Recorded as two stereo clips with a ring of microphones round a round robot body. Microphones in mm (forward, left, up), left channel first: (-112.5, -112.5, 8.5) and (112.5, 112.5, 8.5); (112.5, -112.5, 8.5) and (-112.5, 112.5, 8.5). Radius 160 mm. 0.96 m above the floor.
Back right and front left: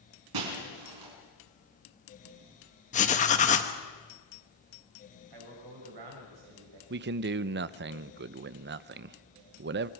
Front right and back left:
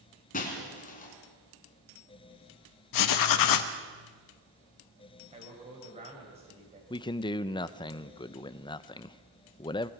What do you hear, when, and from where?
0.3 s breaking glass: 20° left, 3.5 m
2.9 s writing: 70° right, 1.2 m
5.3 s a man speaking: 65° left, 6 m
6.9 s a man speaking: 20° left, 0.5 m